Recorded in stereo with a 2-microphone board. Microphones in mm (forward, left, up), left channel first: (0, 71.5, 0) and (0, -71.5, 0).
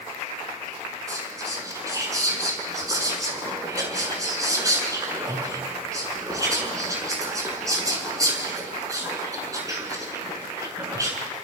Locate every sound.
1.1 s whispering: 25° right (ahead or behind), 7 m